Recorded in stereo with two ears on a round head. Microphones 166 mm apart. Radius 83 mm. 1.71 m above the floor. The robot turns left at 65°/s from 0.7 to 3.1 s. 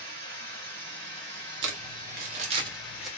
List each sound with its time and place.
0.0 s running water: 65° right, 2.5 m; by 3.2 s 140° left, 2.5 m
1.6 s crumpling: 65° right (ahead or behind), 1.1 m; by 3.1 s centre (ahead or behind), 1.1 m